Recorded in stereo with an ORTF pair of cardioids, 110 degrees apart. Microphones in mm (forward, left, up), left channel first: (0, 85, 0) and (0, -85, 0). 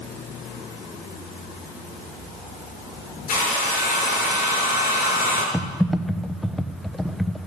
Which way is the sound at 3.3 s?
50° left.